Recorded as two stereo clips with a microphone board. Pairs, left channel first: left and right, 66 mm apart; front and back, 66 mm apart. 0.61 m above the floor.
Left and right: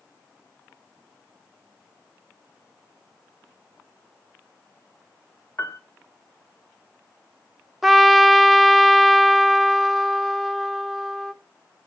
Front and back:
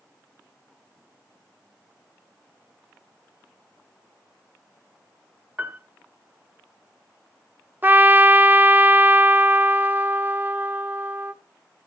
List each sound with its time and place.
5.6 s a piano: 120° left, 1.1 m
7.8 s a trumpet: 175° right, 0.5 m